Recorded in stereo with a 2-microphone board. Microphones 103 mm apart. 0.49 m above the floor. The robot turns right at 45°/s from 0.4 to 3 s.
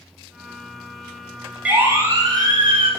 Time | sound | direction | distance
1.6 | a siren | 10° right (ahead or behind) | 6.5 m